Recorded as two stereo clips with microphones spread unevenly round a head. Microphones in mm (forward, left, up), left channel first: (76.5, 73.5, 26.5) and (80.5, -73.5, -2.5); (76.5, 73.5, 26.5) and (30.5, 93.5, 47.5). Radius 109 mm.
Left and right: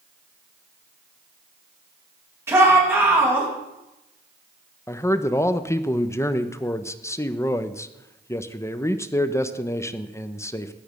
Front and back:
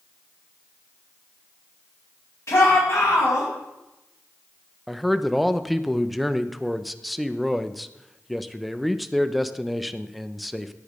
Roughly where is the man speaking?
Ahead.